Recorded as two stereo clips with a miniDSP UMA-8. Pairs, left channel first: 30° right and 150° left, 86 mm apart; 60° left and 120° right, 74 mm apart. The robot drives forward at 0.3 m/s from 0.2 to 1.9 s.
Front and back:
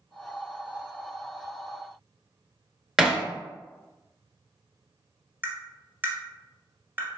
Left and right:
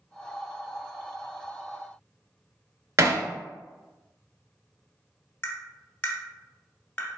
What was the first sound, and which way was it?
Hammering, 130° right.